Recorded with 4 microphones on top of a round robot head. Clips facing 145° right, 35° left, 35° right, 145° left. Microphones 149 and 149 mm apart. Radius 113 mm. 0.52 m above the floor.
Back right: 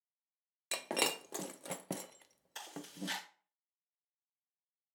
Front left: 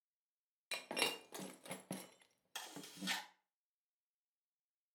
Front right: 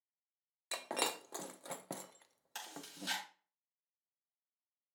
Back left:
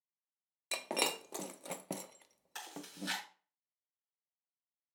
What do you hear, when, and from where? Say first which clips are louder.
0.7 s breaking glass: back right 6 dB, back left 2 dB; 150° right, 0.5 m
2.5 s chewing: back right 6 dB, back left 3 dB; 30° left, 6 m